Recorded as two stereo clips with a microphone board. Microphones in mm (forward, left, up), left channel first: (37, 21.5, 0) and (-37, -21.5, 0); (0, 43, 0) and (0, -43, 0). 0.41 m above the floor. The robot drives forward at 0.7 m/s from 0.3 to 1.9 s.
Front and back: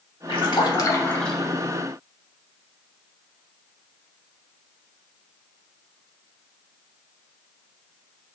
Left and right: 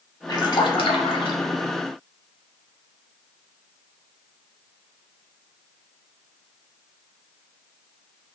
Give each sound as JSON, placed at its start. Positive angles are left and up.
{"t": 0.3, "sound": "a splash", "azimuth_deg": 45, "distance_m": 0.7}